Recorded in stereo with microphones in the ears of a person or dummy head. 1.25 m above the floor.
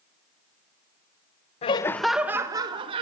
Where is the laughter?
35° left (ahead or behind), 0.9 m; by 3.0 s 30° right (ahead or behind), 2 m.